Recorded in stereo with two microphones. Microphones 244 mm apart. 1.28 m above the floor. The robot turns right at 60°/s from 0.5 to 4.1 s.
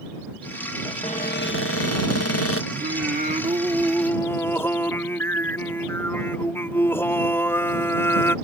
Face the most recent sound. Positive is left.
turn(degrees=10)